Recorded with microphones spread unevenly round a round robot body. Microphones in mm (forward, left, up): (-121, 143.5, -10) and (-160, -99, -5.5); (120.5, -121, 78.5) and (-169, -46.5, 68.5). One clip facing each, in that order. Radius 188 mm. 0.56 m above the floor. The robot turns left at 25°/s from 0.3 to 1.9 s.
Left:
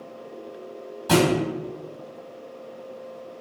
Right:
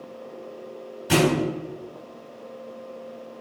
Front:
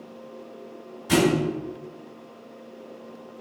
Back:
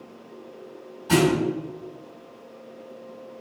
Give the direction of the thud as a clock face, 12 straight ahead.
10 o'clock.